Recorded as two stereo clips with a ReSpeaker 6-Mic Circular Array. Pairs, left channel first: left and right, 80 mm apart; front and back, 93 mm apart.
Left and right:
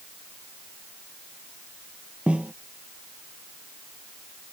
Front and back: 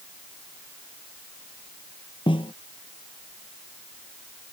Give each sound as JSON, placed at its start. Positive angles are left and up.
{"t": 2.3, "sound": "a snare drum", "azimuth_deg": -15}